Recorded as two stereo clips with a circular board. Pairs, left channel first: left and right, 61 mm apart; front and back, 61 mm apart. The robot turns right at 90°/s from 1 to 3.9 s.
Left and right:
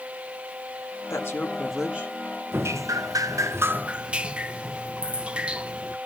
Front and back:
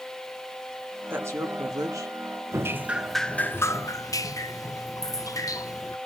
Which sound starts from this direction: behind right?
Dripping, at 2.5 s.